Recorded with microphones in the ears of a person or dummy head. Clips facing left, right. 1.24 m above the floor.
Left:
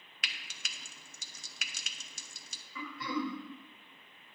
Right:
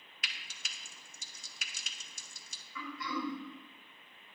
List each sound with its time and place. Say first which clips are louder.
0.2 s frying: left 2 dB; 55° left (ahead or behind), 0.9 m
2.8 s throat clearing: left 3 dB; 30° left (ahead or behind), 1.6 m